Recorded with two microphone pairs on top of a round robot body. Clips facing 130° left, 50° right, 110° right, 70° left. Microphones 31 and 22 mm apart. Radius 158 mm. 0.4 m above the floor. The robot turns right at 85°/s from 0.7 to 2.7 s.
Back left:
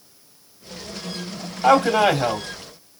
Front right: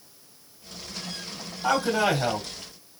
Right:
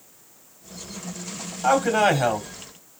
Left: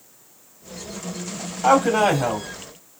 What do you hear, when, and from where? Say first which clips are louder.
1.6 s a man speaking: back left 7 dB, left 2 dB; 140° left, 2.5 m; by 2.5 s 150° right, 2.5 m